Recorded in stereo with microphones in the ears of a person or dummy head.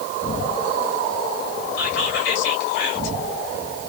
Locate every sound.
1.8 s whispering: 60° left (ahead or behind), 1.7 m